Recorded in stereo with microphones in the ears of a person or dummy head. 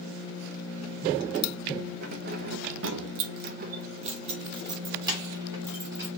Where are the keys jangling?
50° right (ahead or behind), 0.9 m; by 6.1 s 10° right (ahead or behind), 1.9 m.